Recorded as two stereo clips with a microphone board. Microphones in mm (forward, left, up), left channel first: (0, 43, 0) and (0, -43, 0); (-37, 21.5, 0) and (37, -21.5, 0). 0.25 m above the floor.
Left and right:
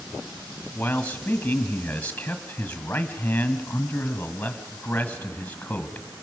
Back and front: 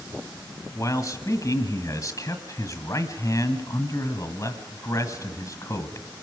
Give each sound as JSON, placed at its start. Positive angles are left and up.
{"t": 0.8, "sound": "a man speaking", "azimuth_deg": 155, "distance_m": 1.5}